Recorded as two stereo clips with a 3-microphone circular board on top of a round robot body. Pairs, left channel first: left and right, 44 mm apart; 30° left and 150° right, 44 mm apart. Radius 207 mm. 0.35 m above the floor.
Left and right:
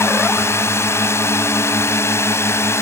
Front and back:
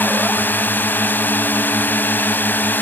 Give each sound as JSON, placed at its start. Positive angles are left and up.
{"t": 0.0, "sound": "a drone", "azimuth_deg": 75}